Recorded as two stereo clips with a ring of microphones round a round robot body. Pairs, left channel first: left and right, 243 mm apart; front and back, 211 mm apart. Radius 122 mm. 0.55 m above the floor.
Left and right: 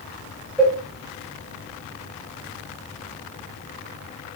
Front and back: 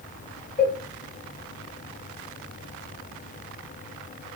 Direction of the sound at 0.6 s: Straight ahead.